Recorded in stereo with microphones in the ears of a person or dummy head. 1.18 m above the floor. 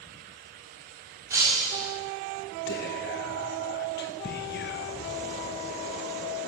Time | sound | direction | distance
1.3 | breaking glass | 15° right (ahead or behind) | 4.5 m
2.7 | whispering | 45° left (ahead or behind) | 1.1 m